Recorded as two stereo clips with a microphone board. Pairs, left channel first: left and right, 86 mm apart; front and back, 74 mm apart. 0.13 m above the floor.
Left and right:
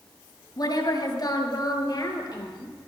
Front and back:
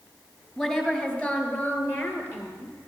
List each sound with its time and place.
0.6 s a woman speaking: 75° left, 2.5 m; by 2.8 s 50° left, 3.5 m